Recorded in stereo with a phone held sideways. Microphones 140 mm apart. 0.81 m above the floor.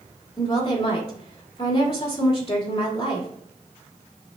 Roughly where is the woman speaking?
Left.